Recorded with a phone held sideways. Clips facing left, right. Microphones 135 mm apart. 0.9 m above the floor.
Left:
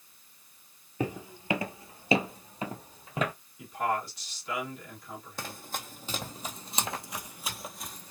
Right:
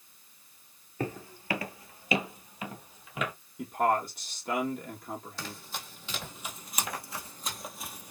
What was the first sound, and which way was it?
Footsteps, 15° left (ahead or behind).